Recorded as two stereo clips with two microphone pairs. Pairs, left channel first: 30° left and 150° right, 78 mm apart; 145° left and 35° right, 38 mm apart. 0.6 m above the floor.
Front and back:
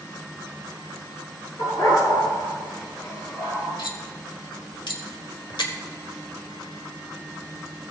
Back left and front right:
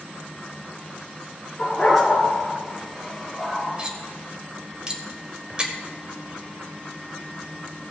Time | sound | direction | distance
1.6 | a dog barking | 60° left | 4.5 m
3.8 | cutlery clinking | 30° left | 1.4 m